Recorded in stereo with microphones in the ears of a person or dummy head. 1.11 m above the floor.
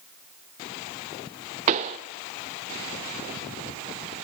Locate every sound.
1.7 s a pop: 20° right (ahead or behind), 0.8 m